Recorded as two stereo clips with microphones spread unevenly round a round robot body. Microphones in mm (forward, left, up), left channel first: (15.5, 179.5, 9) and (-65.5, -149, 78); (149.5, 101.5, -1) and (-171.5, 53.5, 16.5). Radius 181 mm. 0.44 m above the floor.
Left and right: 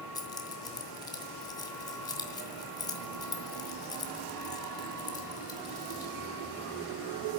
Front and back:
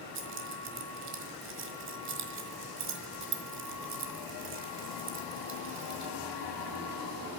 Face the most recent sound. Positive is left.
turn(degrees=150)